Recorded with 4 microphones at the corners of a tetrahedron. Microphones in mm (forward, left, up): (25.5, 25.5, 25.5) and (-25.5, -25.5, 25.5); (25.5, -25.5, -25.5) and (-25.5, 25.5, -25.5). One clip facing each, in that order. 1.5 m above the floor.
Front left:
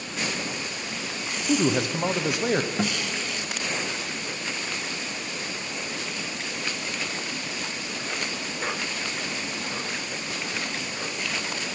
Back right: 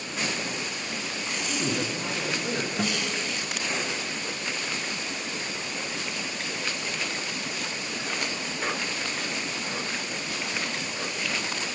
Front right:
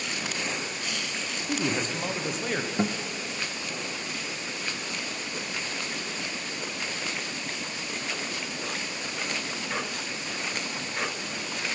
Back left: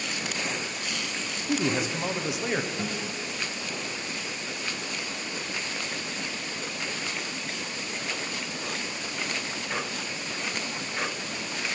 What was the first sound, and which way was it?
A man speaking, 50° left.